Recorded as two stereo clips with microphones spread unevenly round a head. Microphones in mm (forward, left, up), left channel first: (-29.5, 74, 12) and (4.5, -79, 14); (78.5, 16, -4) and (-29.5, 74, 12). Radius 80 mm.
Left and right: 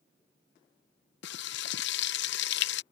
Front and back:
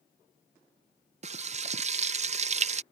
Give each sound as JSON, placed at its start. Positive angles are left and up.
{"t": 1.2, "sound": "frying", "azimuth_deg": 120}